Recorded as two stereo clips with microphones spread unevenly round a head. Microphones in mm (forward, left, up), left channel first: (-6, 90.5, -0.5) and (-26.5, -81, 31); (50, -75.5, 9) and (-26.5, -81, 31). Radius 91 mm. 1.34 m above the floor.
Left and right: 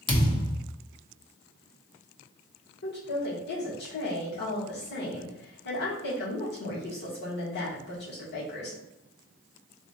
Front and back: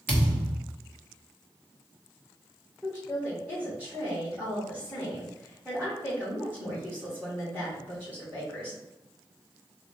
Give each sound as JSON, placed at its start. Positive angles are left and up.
{"t": 0.1, "sound": "a thud", "azimuth_deg": 150, "distance_m": 0.8}
{"t": 2.8, "sound": "a woman speaking", "azimuth_deg": 100, "distance_m": 1.7}